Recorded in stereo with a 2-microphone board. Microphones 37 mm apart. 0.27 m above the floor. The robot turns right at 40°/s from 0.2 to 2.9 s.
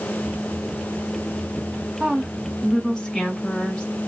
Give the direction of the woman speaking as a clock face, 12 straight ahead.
12 o'clock.